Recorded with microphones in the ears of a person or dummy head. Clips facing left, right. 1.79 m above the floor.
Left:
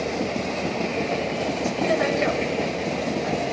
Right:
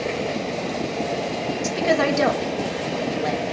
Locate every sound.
1.6 s a woman speaking: 70° right (ahead or behind), 2.5 m